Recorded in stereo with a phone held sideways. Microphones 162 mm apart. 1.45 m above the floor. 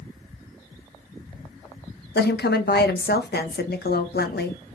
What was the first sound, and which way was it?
A woman speaking, 80° left.